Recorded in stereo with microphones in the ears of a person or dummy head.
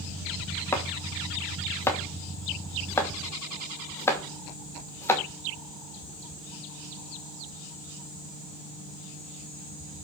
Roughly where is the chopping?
Centre.